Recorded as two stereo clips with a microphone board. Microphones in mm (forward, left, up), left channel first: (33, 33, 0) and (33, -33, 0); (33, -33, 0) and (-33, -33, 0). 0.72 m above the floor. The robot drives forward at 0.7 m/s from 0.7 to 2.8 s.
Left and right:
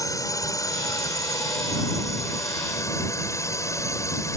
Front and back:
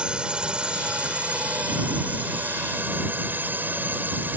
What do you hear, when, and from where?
0.0 s a drone: 105° left; by 4.4 s 120° left